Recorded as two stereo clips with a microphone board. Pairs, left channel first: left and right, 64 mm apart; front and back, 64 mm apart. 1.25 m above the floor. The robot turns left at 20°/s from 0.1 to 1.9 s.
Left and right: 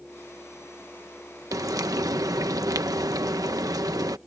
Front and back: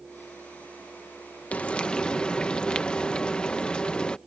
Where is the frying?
65° right; by 4.2 s 75° right.